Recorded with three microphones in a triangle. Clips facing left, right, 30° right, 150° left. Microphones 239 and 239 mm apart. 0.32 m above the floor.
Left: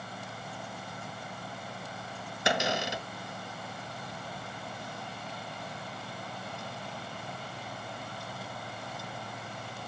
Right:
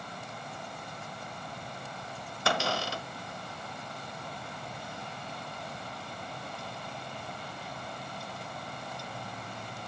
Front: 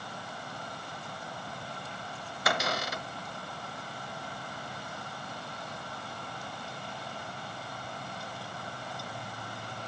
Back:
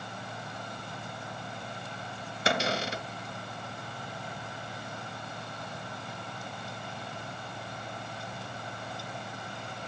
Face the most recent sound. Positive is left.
turn(degrees=140)